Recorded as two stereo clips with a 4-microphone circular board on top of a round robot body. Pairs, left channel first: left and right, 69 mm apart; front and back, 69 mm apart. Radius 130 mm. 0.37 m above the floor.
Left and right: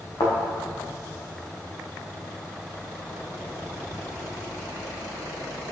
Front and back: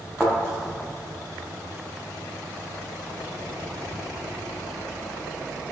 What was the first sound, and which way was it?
A thud, 80° left.